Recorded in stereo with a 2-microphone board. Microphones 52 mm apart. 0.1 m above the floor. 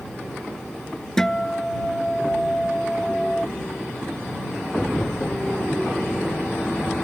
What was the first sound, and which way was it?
A guitar, 10° left (ahead or behind).